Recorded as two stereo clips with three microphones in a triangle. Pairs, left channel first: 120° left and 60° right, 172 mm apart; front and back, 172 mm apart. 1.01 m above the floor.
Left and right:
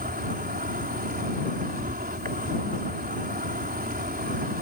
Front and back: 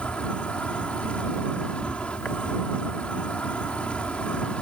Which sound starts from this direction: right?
An insect, at 0.0 s.